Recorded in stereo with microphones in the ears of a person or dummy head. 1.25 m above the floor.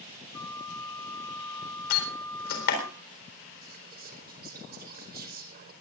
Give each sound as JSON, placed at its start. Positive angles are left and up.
{"t": 0.3, "sound": "a flute", "side_deg": 20, "distance_m": 1.7}
{"t": 1.9, "sound": "a door slam", "side_deg": 55, "distance_m": 4.0}
{"t": 3.6, "sound": "whispering", "side_deg": -45, "distance_m": 4.5}